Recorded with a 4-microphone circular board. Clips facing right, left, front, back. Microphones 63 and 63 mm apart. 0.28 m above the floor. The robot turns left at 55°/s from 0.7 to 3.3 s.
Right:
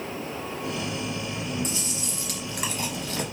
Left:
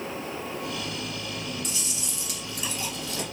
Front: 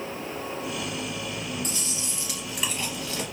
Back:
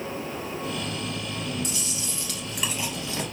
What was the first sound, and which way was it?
Chewing, 40° right.